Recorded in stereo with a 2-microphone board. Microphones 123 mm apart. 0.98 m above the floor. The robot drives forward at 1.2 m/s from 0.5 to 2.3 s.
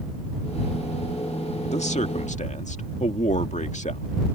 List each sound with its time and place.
1.7 s a man speaking: 65° left (ahead or behind); by 4.1 s 75° left (ahead or behind)